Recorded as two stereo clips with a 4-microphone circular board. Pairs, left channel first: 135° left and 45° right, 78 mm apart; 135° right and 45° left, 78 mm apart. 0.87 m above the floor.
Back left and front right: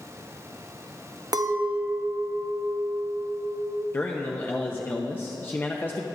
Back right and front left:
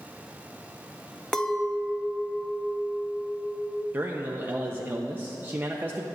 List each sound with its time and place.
1.3 s a clink: 55° right, 0.5 m
3.9 s a man speaking: 90° left, 0.6 m